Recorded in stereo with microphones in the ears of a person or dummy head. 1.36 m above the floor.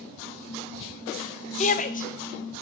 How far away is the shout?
About 0.6 m.